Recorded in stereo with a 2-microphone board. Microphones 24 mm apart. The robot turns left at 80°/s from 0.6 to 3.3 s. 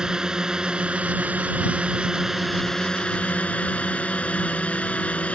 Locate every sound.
0.0 s a drone: 30° right; by 5.4 s 115° left